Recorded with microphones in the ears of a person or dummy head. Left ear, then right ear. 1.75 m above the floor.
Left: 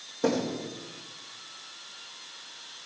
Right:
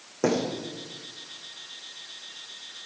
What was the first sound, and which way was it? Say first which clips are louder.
A thud: right 2 dB; 25° right (ahead or behind).